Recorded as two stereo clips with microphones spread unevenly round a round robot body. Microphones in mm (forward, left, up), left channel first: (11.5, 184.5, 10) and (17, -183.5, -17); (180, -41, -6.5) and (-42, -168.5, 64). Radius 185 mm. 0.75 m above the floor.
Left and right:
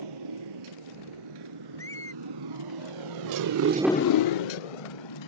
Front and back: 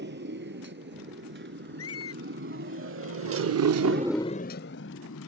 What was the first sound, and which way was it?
A motorcycle, 110° right.